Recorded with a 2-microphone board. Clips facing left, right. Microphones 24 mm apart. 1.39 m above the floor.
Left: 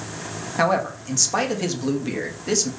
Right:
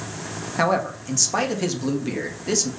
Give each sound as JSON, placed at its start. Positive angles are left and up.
{"t": 0.6, "sound": "a man speaking", "side_deg": 5, "distance_m": 0.7}